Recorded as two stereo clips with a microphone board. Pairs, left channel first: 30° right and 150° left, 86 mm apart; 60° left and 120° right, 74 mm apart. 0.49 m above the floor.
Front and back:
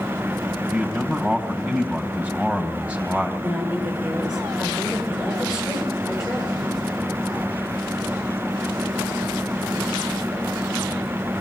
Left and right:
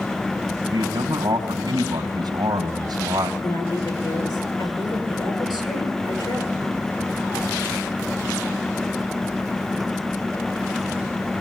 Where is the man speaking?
135° right, 2.5 m.